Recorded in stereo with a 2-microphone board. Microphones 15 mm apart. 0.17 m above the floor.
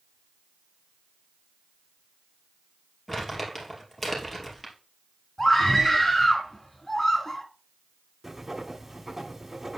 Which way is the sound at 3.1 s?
15° left (ahead or behind).